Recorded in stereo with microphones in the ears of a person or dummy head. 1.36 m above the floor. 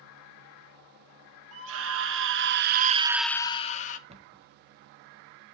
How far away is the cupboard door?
About 1.4 m.